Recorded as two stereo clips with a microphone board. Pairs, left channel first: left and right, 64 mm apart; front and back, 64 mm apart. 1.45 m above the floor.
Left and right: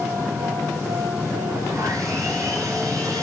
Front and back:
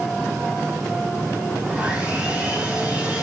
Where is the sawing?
110° right, 8.5 m.